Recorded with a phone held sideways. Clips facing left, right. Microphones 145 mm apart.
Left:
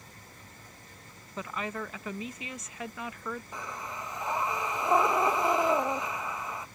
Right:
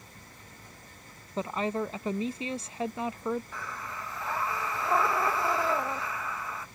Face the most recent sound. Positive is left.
turn(degrees=20)  # may be behind; listen again after turning